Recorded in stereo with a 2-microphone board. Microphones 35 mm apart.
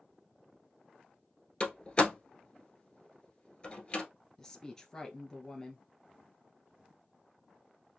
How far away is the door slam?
About 1.3 m.